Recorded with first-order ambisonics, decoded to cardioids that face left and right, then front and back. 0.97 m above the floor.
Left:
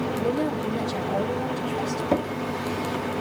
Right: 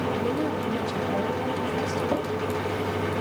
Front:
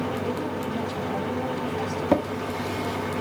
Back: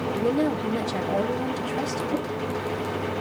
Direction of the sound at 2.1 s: 15° left.